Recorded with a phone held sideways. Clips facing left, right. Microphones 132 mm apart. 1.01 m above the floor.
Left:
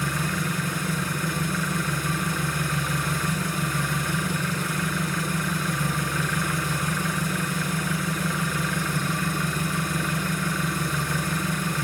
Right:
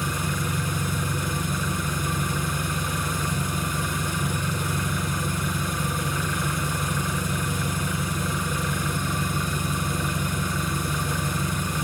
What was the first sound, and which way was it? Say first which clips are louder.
An engine running: left 1 dB; 20° right (ahead or behind).